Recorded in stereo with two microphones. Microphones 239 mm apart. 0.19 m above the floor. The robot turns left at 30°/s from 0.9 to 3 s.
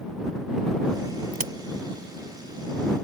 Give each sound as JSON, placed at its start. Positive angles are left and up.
{"t": 1.3, "sound": "a crack", "side_deg": -35}